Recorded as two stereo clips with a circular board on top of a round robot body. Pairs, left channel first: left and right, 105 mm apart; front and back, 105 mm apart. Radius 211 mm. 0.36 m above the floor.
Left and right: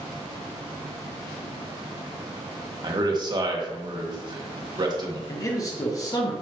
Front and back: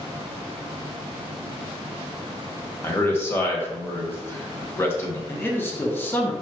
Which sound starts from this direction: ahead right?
A man speaking, at 2.8 s.